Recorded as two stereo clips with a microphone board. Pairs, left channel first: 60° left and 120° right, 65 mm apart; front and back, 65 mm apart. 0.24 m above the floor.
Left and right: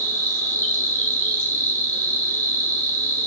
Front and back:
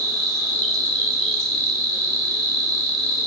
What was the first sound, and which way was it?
An insect, 70° left.